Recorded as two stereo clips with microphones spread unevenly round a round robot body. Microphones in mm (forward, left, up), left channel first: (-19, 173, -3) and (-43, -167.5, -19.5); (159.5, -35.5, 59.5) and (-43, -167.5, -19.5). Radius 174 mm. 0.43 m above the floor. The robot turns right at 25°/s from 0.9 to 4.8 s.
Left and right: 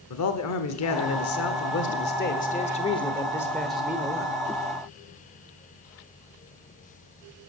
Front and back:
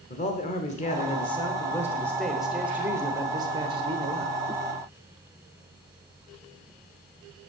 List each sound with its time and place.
0.1 s a man speaking: 110° left, 0.9 m; by 4.3 s 165° right, 0.9 m